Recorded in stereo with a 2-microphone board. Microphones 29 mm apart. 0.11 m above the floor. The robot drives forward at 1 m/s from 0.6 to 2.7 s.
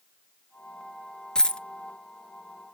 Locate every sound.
1.4 s a dropped coin: 30° left (ahead or behind), 0.6 m; by 1.6 s 35° left (ahead or behind), 0.5 m